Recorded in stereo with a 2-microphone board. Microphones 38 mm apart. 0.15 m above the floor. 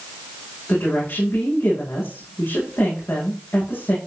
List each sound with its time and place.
0.7 s a woman speaking: 80° left, 9.5 m